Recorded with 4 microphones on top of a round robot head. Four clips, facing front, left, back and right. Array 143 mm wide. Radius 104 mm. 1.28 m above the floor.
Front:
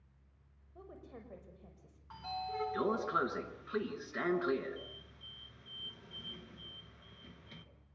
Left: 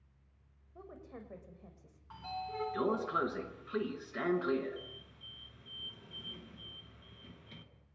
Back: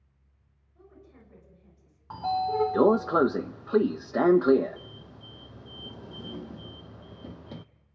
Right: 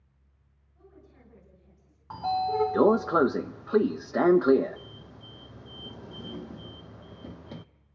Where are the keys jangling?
I don't hear keys jangling.